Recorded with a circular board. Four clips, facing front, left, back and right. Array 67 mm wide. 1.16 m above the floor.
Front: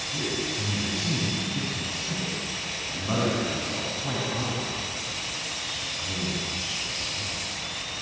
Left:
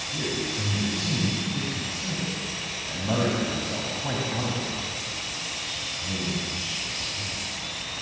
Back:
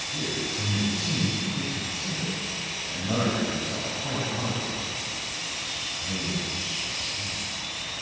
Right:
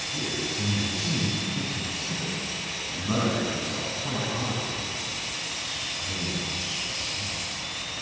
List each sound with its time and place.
0.1 s a man speaking: 90° left, 8 m